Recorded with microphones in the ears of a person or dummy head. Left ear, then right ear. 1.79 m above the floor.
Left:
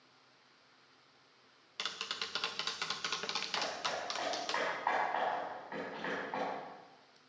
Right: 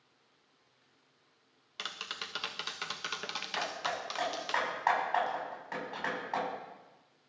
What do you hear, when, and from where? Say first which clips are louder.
1.8 s tapping: even; 10° right (ahead or behind), 0.9 m
3.6 s hammering: right 5 dB; 80° right, 7.5 m